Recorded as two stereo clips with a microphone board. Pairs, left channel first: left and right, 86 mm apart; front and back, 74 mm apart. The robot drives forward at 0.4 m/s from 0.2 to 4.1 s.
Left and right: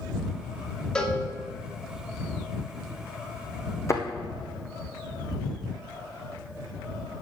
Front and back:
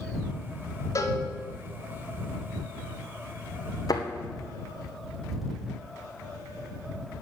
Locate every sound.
0.9 s a cowbell: 10° left, 1.4 m; by 1.2 s 15° left, 1.3 m
3.9 s a thud: 35° left, 1.6 m